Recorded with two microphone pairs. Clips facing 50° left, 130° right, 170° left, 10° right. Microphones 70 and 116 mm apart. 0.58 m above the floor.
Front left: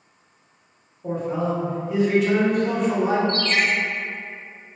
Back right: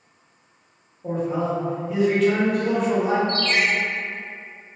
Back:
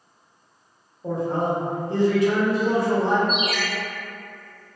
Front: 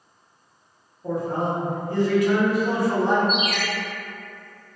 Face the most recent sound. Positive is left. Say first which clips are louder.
# even, even
turn(degrees=0)